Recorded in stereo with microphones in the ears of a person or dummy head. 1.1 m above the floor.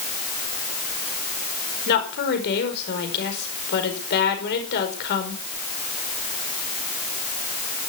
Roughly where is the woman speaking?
Left.